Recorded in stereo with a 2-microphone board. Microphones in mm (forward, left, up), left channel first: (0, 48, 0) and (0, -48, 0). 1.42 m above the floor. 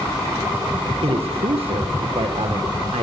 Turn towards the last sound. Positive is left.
turn(degrees=-90)